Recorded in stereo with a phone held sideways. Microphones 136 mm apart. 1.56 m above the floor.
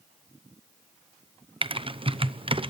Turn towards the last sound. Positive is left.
turn(degrees=-40)  # may be behind; listen again after turning